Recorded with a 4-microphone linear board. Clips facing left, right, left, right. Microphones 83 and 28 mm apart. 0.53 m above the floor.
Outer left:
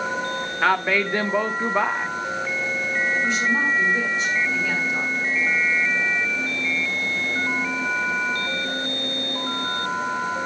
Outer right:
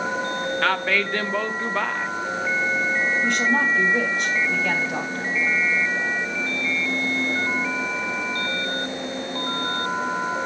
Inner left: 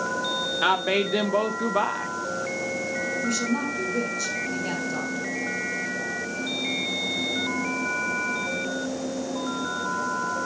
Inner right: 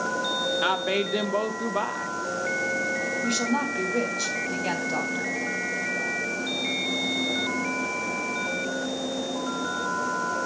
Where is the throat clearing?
I don't hear throat clearing.